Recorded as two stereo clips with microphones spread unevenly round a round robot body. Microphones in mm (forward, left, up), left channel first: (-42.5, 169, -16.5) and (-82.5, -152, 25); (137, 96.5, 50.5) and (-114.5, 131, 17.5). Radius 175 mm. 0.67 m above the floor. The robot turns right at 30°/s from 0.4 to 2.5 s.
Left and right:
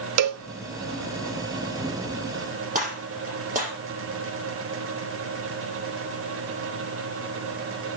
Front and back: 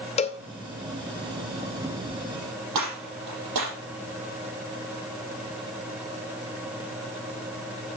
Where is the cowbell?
75° right, 0.5 m; by 0.4 s 70° right, 0.5 m.